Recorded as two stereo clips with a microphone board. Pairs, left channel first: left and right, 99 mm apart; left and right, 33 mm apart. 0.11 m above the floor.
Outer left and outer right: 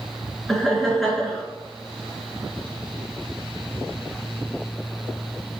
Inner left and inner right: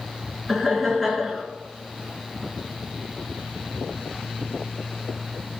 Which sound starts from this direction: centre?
Laughter, at 0.5 s.